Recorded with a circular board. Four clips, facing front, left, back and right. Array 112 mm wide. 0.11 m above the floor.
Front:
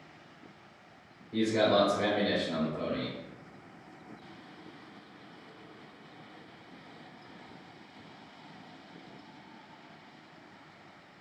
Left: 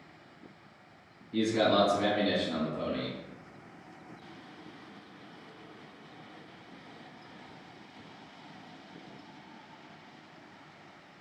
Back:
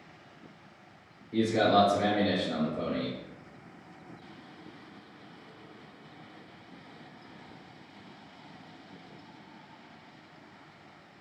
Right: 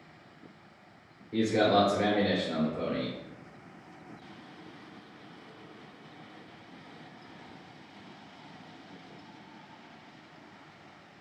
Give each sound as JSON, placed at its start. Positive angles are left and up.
{"t": 1.3, "sound": "a man speaking", "azimuth_deg": -100, "distance_m": 1.9}